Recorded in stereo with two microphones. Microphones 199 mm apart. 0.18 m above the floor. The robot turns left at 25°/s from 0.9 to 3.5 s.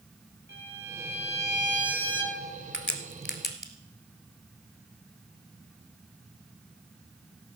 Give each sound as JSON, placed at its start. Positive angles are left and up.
{"t": 0.5, "sound": "a violin", "azimuth_deg": -105, "distance_m": 5.0}
{"t": 2.7, "sound": "a crack", "side_deg": 70, "distance_m": 1.2}